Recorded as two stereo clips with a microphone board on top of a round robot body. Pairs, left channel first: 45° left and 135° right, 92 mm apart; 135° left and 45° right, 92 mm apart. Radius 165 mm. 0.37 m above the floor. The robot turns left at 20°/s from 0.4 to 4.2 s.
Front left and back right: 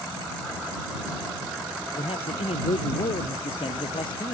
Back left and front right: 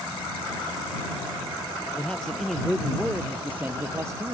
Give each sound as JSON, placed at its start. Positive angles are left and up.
{"t": 2.0, "sound": "a man speaking", "azimuth_deg": 55}